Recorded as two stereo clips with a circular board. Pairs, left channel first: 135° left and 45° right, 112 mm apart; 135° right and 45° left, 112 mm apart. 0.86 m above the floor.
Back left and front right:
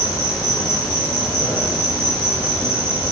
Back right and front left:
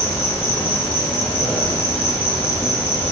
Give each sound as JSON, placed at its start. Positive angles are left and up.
{"t": 0.0, "sound": "an insect", "azimuth_deg": 165, "distance_m": 1.0}